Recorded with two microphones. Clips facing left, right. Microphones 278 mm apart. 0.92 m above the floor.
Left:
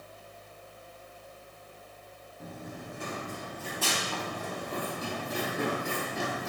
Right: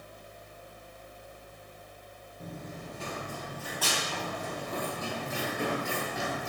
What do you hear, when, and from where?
2.4 s running footsteps: centre (ahead or behind), 0.9 m; by 6.5 s 40° left (ahead or behind), 3 m